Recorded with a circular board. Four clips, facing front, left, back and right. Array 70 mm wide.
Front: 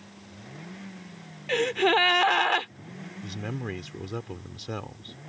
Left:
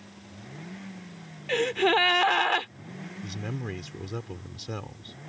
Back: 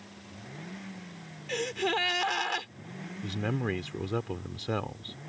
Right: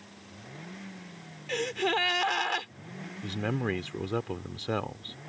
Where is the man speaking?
115° right.